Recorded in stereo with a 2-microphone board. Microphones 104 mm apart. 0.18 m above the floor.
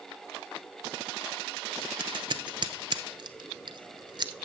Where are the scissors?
50° right (ahead or behind), 0.9 m.